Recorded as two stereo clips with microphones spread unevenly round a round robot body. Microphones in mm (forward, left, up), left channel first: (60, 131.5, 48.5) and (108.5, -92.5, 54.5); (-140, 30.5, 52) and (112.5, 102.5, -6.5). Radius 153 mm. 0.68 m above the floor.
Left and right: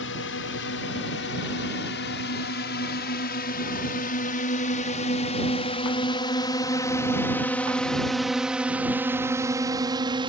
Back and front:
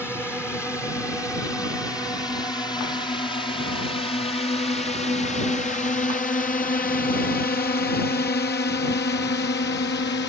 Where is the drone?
110° left; by 10.3 s 130° right.